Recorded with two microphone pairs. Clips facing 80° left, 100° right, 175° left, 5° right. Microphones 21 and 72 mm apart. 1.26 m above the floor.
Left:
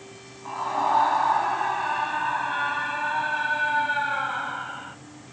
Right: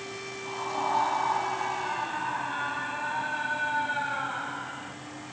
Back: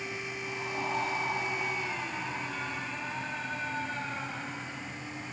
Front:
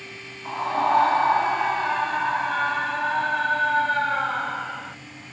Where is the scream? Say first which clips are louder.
Left 6 dB, front 14 dB; 15° left; by 5.0 s 5° left.